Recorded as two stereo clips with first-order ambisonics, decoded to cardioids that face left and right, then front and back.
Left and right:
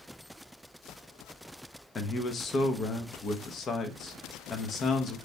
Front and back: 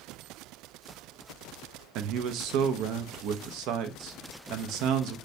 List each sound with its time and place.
1.9 s a man speaking: 150° left, 0.6 m